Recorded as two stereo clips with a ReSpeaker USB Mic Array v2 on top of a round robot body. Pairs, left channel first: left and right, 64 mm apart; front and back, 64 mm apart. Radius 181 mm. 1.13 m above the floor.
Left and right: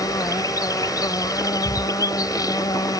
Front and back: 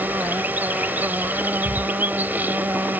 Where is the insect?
120° left.